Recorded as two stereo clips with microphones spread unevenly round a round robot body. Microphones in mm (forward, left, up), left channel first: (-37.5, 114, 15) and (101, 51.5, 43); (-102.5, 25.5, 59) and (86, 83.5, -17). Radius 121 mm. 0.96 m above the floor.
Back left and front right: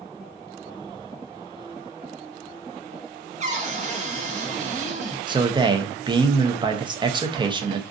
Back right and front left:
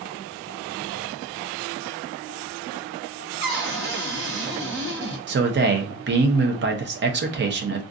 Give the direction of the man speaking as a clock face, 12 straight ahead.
11 o'clock.